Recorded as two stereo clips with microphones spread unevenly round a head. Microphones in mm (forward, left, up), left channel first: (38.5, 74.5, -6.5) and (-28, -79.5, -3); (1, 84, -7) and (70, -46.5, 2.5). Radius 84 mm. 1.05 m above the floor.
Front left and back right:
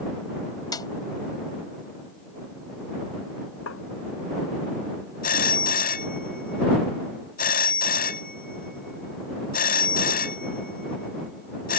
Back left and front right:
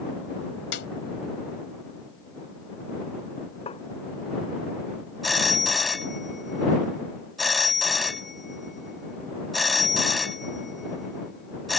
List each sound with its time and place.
0.7 s a snare drum: 135° left
3.7 s tapping: 65° left
5.2 s a phone ringing: 25° left